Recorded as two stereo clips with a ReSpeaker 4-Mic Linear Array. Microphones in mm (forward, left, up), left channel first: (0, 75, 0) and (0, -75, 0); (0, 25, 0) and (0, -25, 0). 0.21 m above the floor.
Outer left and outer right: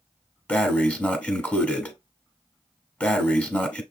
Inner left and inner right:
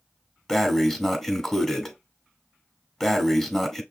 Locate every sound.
0.5 s breathing: 10° left (ahead or behind), 0.9 m